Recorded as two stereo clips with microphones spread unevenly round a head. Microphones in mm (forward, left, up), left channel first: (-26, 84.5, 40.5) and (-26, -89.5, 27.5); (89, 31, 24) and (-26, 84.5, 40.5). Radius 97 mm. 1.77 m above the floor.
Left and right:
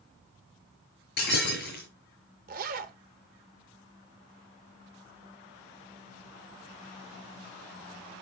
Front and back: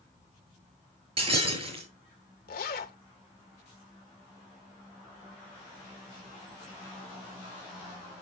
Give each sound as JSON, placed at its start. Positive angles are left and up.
{"t": 1.2, "sound": "breaking glass", "azimuth_deg": 120, "distance_m": 6.5}
{"t": 2.5, "sound": "a zipper", "azimuth_deg": -40, "distance_m": 1.1}